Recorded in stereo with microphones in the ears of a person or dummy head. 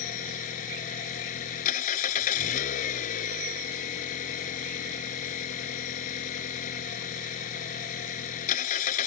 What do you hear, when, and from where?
0.0 s an engine running: 45° left (ahead or behind)